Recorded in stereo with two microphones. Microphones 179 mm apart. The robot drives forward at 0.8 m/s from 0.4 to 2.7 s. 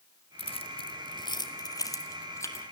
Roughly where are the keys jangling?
Left.